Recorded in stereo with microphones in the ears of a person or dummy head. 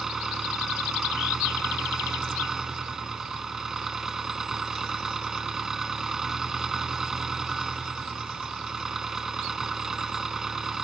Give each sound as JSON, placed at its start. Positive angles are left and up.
{"t": 0.0, "sound": "an engine running", "side_deg": -5}